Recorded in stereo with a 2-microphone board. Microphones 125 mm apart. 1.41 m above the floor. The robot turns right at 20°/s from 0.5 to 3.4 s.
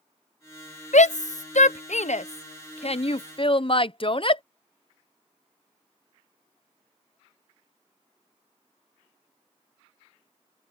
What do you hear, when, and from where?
0.9 s a shout: 70° left (ahead or behind); by 4.4 s 45° left (ahead or behind)